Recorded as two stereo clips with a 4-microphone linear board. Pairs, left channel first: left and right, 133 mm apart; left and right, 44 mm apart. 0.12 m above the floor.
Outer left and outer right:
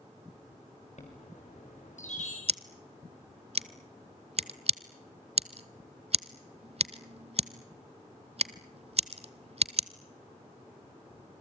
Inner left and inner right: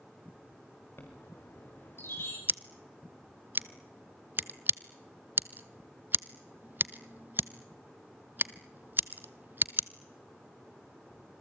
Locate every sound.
1.0 s a chime: 65° left (ahead or behind), 5.5 m
2.5 s scissors: 50° right (ahead or behind), 0.6 m